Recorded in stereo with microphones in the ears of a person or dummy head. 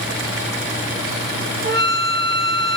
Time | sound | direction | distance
1.6 | a flute | 60° right (ahead or behind) | 2.5 m